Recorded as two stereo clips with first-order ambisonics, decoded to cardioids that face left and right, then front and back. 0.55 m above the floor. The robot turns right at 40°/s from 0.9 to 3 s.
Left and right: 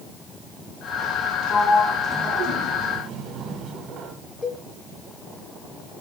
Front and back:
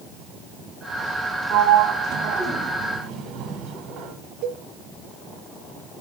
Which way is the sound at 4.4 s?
165° left.